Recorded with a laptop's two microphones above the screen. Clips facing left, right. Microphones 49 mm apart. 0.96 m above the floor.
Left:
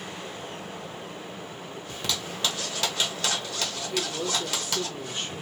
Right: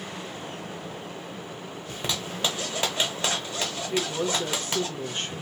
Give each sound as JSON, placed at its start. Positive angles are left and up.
{"t": 1.9, "sound": "a zipper", "side_deg": -25, "distance_m": 0.9}
{"t": 3.9, "sound": "a woman speaking", "side_deg": -40, "distance_m": 0.9}